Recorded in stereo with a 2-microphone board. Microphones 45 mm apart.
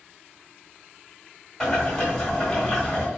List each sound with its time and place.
1.6 s boiling: 10° left (ahead or behind), 1.5 m